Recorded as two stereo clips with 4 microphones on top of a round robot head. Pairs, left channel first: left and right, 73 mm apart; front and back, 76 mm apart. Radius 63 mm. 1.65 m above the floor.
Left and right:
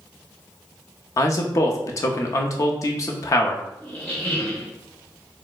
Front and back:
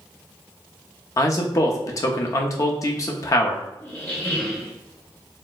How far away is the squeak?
About 0.8 m.